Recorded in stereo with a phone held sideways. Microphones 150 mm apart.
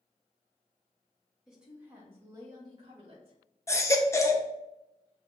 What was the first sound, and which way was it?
A woman speaking, 5° right (ahead or behind).